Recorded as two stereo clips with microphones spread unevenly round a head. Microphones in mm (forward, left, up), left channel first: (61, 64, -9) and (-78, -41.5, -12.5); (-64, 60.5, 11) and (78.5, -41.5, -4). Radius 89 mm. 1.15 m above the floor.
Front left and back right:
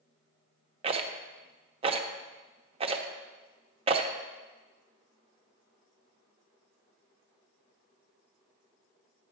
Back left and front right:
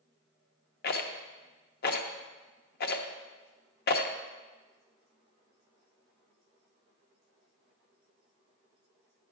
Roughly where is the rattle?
Behind.